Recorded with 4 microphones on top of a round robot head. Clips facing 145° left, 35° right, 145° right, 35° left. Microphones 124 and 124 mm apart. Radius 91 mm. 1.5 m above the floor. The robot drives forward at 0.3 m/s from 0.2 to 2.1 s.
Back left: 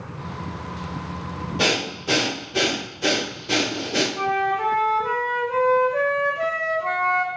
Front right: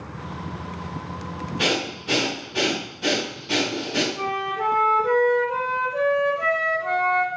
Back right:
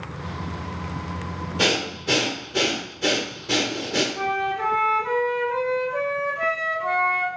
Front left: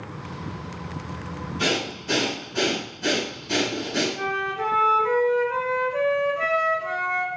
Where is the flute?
155° left, 1.0 m.